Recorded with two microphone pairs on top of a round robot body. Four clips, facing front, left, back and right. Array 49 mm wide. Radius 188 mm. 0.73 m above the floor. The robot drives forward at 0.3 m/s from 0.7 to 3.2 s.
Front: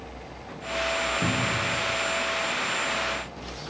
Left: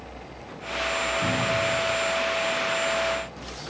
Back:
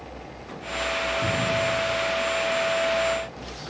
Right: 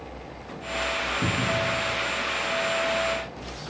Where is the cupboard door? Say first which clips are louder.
Even, back 2 dB; 50° right, 0.7 m; by 1.7 s 60° right, 0.6 m.